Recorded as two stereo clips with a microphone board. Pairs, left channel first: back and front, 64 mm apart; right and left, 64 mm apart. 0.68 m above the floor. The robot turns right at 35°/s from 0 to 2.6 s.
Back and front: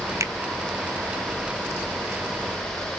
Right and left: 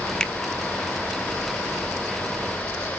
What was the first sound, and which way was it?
A finger snap, 15° right.